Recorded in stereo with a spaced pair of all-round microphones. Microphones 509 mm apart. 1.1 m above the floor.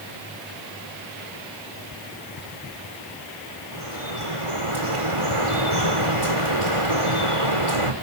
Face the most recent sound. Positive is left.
turn(degrees=-65)  # may be behind; listen again after turning